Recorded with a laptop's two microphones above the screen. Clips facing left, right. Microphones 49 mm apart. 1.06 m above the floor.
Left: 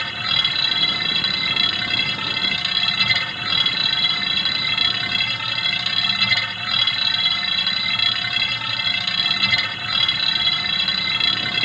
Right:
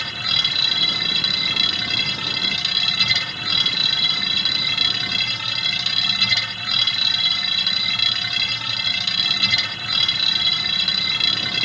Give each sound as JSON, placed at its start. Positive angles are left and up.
{"t": 0.0, "sound": "a machine running", "side_deg": 15}